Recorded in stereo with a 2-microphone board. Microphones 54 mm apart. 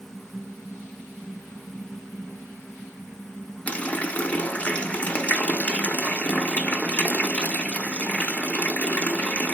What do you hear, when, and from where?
3.7 s a running tap: 25° left (ahead or behind), 0.5 m